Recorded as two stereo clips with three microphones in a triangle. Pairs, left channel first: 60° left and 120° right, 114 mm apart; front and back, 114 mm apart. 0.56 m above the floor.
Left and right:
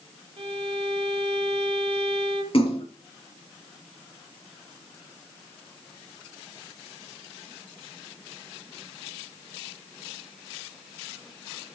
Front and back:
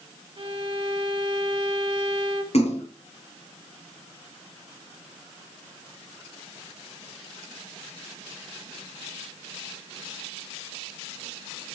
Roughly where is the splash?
Ahead left.